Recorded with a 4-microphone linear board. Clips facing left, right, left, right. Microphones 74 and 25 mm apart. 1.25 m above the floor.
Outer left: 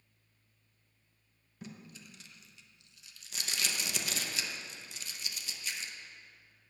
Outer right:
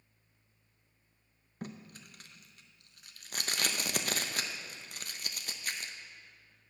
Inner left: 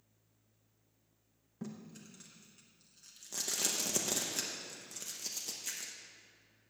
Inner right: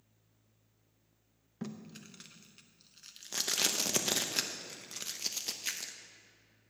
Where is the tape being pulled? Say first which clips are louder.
Outer right 4 dB, inner right 3 dB; 50° right (ahead or behind), 0.6 m.